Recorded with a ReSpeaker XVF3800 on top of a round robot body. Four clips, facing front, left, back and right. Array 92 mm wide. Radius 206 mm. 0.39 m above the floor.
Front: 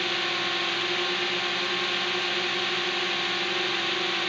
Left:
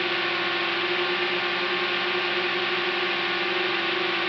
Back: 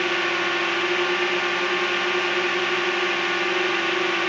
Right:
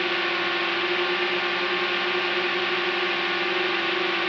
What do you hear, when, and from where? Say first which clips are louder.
0.0 s a drone: right 1 dB, back 6 dB; 170° right